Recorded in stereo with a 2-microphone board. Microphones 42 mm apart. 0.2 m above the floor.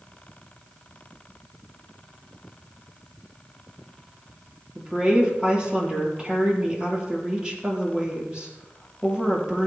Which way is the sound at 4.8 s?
20° right (ahead or behind).